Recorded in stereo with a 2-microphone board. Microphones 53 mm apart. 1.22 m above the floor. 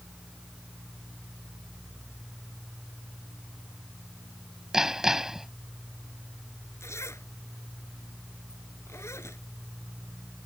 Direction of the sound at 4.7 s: 10° right (ahead or behind).